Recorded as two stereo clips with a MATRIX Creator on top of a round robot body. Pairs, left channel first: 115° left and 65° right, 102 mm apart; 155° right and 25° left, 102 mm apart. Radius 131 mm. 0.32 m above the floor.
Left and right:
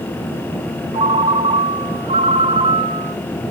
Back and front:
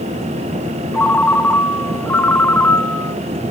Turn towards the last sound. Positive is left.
turn(degrees=-85)